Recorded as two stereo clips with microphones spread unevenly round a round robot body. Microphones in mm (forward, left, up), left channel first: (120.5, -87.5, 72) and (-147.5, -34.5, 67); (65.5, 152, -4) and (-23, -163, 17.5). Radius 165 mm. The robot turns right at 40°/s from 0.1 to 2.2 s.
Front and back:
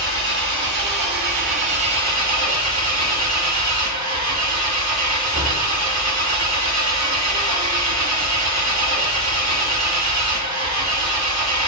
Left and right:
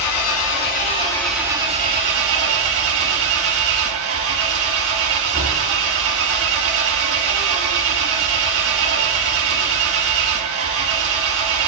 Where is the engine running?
115° left, 1.7 m; by 11.7 s 160° right, 1.7 m.